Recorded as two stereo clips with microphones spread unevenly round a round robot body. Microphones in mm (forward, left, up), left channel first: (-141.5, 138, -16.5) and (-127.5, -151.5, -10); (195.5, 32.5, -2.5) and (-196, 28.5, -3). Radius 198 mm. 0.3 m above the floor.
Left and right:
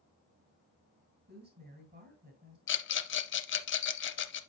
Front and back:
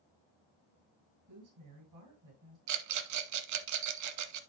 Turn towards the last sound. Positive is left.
turn(degrees=140)